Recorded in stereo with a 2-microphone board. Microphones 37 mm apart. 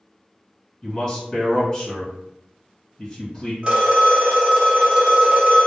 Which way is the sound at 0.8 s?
20° left (ahead or behind).